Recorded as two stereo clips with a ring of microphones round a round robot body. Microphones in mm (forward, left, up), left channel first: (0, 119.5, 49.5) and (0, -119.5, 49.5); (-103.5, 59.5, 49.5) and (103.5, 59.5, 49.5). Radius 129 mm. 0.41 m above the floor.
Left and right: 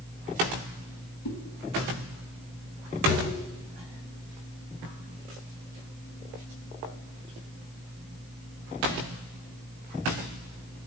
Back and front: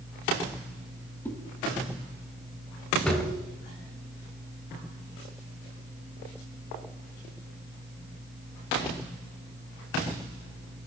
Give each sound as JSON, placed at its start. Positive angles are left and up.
{"t": 1.2, "sound": "a whoosh", "azimuth_deg": 100, "distance_m": 0.8}
{"t": 3.1, "sound": "a drawer", "azimuth_deg": 95, "distance_m": 1.2}